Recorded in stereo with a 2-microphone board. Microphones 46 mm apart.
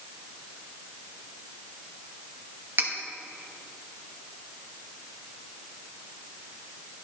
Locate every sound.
2.8 s cutlery clinking: 55° right (ahead or behind), 1.0 m